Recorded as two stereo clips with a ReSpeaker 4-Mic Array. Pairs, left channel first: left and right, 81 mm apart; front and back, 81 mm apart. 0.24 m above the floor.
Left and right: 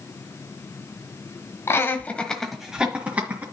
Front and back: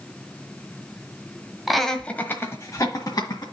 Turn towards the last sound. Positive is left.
turn(degrees=-30)